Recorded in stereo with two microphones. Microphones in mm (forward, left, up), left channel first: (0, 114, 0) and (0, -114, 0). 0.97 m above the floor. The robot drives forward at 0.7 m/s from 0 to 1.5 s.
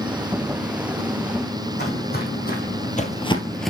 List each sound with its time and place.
1.8 s footsteps: 50° left (ahead or behind), 2.5 m; by 3.7 s centre (ahead or behind), 0.9 m